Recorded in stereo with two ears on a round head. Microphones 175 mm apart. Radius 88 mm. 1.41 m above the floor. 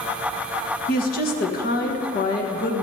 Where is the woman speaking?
45° left (ahead or behind), 1.5 m.